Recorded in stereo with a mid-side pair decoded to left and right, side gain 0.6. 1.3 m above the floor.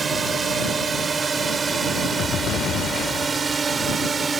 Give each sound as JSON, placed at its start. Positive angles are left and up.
{"t": 0.0, "sound": "a drone", "azimuth_deg": -30}